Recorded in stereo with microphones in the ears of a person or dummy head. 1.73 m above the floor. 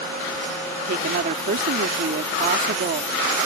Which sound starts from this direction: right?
A woman speaking, at 0.8 s.